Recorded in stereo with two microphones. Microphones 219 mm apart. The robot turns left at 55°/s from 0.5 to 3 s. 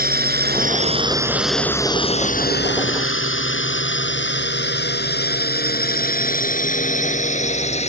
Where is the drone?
45° right (ahead or behind); by 7.9 s 30° left (ahead or behind).